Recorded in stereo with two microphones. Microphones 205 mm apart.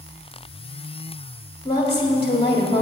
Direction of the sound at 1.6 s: 25° left (ahead or behind).